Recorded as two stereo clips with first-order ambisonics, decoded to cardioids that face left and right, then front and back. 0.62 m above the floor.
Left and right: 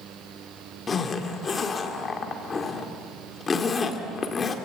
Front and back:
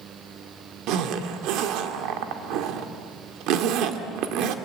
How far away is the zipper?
About 1.9 m.